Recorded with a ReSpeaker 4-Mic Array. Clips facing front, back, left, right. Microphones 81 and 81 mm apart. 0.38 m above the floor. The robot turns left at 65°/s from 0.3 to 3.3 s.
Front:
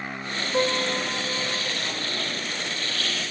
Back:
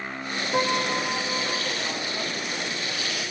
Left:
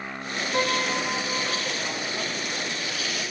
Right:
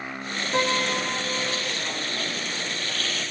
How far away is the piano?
About 8 m.